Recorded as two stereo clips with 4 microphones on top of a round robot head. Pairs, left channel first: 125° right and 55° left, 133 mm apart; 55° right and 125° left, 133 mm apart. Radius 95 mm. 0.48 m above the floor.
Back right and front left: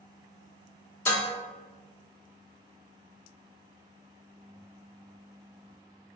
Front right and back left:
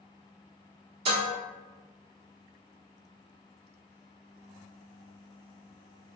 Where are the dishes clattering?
160° left, 1.0 m.